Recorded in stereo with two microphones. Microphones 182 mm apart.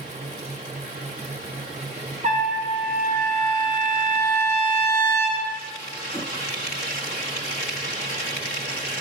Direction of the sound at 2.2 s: 45° right (ahead or behind).